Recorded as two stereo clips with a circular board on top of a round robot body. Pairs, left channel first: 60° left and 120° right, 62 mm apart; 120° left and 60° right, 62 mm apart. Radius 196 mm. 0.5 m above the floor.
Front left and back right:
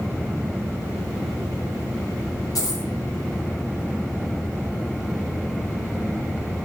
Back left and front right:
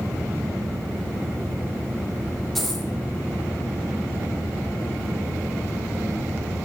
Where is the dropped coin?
30° left, 0.7 m.